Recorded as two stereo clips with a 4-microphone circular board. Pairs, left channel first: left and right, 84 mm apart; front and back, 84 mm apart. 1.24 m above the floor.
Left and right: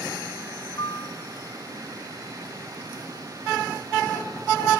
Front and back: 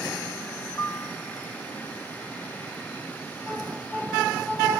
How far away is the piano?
About 1.8 m.